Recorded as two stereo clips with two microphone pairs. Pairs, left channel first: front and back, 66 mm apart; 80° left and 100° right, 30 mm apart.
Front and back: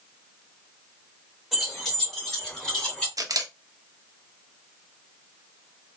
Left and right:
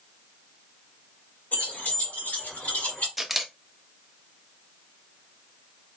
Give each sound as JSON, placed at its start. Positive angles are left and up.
{"t": 1.5, "sound": "keys jangling", "azimuth_deg": 90, "distance_m": 2.5}
{"t": 3.2, "sound": "a camera shutter", "azimuth_deg": 170, "distance_m": 0.7}